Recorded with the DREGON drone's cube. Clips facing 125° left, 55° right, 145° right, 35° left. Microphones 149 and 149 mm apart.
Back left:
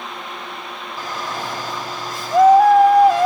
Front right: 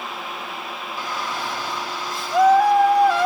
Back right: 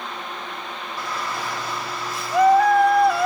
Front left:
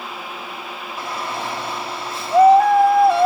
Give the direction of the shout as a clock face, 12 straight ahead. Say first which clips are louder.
Back left 1 dB, front left 2 dB; 9 o'clock.